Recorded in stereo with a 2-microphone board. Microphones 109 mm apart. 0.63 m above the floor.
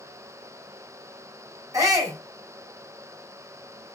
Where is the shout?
35° right (ahead or behind), 4 m.